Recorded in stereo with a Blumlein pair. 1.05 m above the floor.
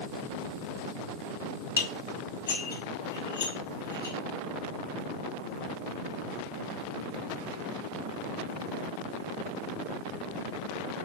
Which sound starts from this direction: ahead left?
Dishes clattering, at 1.8 s.